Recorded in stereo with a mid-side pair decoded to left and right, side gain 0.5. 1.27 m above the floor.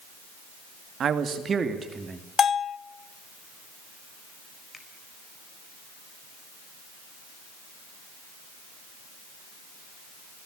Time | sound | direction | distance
1.0 | a man speaking | 50° right | 2.5 m
2.4 | a bell | 45° left | 0.6 m
4.7 | a finger snap | 25° left | 4.5 m